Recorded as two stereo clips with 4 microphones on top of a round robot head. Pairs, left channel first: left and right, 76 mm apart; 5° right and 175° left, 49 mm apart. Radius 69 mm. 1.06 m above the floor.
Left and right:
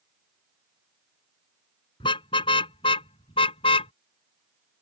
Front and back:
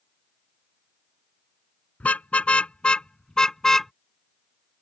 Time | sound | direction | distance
2.0 | a car horn | 60° left | ?